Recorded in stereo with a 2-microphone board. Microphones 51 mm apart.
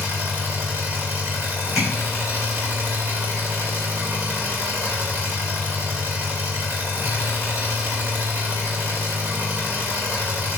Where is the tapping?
Centre (ahead or behind), 2 m.